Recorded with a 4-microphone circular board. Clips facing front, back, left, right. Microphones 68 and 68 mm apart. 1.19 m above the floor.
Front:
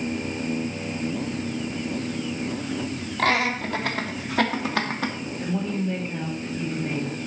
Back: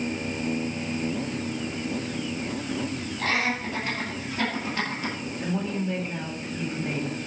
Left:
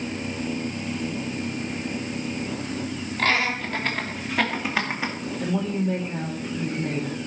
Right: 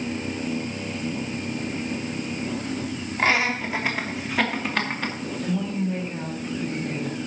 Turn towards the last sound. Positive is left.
turn(degrees=90)